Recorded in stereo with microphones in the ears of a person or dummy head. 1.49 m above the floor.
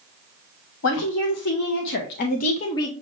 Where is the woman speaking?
80° left, 1.3 m; by 2.9 s 15° left (ahead or behind), 0.9 m.